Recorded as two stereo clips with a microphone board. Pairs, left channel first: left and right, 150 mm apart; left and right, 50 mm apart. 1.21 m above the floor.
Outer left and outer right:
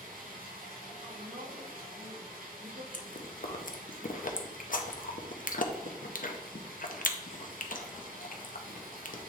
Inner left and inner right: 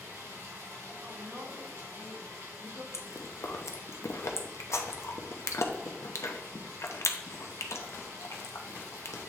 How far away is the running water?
About 2.5 m.